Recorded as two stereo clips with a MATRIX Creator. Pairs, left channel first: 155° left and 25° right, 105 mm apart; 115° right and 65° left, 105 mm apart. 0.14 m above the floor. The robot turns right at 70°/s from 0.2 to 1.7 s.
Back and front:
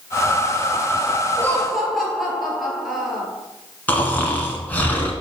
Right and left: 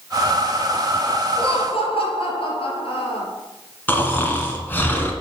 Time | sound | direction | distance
1.4 | laughter | 135° right | 3 m
3.9 | snoring | 155° right | 1.6 m